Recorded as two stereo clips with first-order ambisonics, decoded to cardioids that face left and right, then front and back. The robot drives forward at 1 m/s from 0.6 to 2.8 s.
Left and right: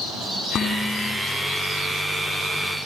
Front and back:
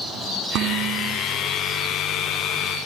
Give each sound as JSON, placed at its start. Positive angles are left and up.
{"t": 0.6, "sound": "dishes clattering", "azimuth_deg": 150, "distance_m": 5.0}